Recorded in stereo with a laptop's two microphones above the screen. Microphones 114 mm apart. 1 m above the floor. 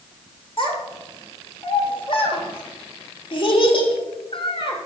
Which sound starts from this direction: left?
A child speaking, at 0.6 s.